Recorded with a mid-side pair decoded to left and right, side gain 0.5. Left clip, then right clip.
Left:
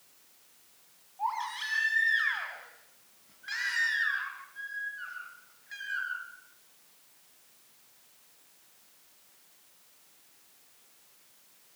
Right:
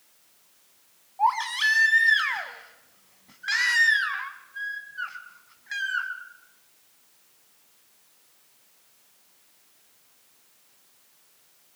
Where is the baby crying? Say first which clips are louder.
Right 10 dB; 60° right, 4 m.